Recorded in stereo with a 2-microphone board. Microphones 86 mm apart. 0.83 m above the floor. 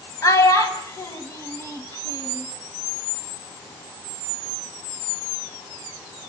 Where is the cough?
No cough in this recording.